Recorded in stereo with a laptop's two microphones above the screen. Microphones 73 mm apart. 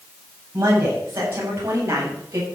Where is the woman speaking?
35° right (ahead or behind), 8 m; by 2.5 s 40° right (ahead or behind), 7 m.